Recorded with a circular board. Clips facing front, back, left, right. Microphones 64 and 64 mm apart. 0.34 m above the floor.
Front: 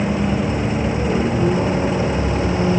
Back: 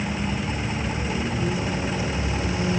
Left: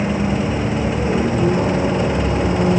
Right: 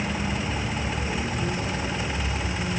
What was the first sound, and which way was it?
A vehicle, 40° left.